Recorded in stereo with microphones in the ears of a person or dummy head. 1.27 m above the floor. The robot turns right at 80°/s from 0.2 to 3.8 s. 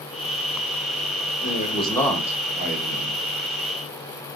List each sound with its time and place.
1.4 s a man speaking: 130° left, 1.0 m; by 3.2 s 90° right, 1.0 m